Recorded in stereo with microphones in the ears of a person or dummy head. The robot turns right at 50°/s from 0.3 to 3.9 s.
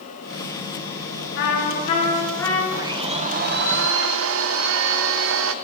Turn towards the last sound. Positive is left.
turn(degrees=-110)